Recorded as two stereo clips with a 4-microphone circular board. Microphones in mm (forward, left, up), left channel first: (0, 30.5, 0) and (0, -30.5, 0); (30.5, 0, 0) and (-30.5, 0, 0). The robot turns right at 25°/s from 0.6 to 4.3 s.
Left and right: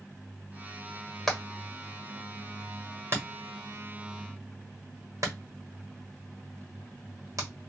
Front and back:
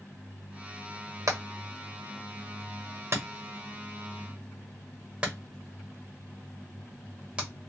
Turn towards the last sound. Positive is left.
turn(degrees=-110)